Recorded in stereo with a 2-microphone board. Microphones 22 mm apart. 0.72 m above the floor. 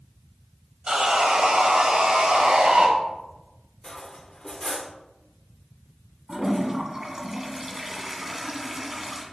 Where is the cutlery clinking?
25° left (ahead or behind), 0.9 m.